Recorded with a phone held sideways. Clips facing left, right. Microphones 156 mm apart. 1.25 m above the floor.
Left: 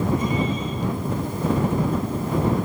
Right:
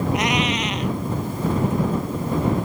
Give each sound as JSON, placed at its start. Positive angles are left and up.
{"t": 0.1, "sound": "a cat meowing", "side_deg": -85}